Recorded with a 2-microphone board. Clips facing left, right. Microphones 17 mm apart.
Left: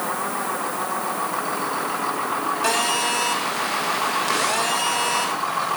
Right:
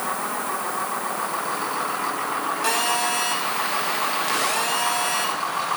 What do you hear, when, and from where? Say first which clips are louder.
2.6 s a phone buzzing: left 1 dB; 10° left (ahead or behind), 6.5 m